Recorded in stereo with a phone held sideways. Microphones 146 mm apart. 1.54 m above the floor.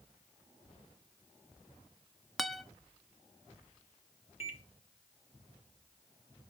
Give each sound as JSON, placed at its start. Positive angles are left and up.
{"t": 2.4, "sound": "a guitar", "side_deg": 0, "distance_m": 1.1}
{"t": 4.4, "sound": "a microwave", "side_deg": 45, "distance_m": 1.4}